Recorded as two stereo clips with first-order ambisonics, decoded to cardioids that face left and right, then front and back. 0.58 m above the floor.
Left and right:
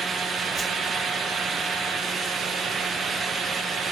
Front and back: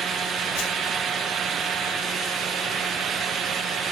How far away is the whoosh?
About 1.7 m.